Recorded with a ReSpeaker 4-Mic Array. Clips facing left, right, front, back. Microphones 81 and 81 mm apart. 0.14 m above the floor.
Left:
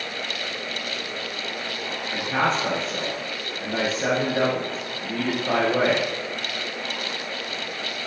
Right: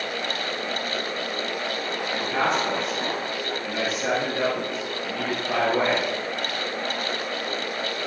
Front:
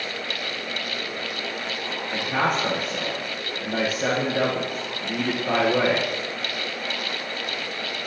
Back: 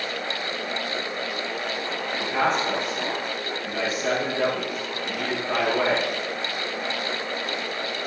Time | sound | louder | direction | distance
2.1 | a man speaking | left 1 dB, even | 35° left | 8 m